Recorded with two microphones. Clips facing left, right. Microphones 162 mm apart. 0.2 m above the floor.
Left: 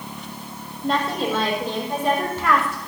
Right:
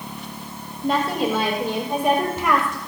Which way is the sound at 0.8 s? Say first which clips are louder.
Right 2 dB; 5° right (ahead or behind).